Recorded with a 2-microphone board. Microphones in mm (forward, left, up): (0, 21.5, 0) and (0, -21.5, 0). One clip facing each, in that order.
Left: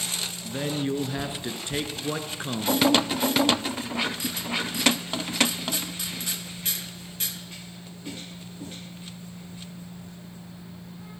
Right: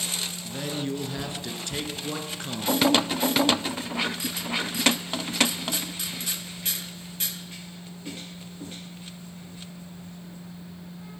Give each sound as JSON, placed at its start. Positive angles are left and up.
{"t": 0.4, "sound": "a man speaking", "side_deg": 20, "distance_m": 1.9}